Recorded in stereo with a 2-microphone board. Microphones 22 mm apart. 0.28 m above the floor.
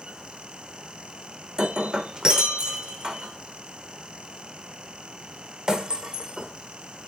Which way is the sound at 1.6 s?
45° right (ahead or behind).